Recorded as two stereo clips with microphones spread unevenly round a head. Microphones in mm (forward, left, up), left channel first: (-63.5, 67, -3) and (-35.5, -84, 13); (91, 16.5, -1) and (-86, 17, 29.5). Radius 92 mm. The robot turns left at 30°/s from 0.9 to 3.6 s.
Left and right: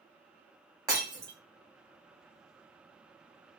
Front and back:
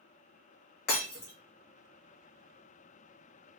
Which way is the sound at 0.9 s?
25° right.